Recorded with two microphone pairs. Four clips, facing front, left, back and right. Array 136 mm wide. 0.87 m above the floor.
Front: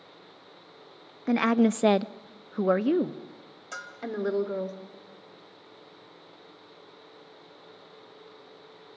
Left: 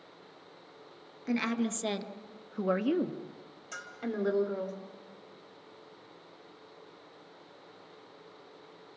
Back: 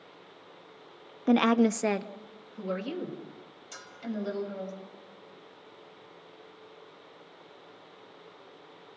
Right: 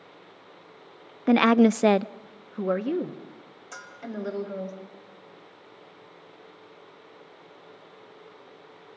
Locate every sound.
1.3 s a woman speaking: 115° right, 0.6 m; by 4.7 s 15° left, 2.5 m
3.7 s a bell: 5° right, 4.5 m